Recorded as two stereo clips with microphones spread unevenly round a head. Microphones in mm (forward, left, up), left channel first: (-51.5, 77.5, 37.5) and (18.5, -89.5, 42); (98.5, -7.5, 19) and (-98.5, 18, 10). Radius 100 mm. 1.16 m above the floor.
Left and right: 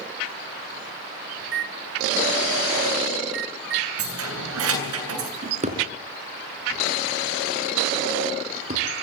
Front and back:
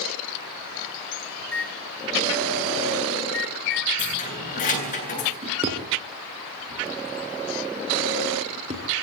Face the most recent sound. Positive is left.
turn(degrees=-120)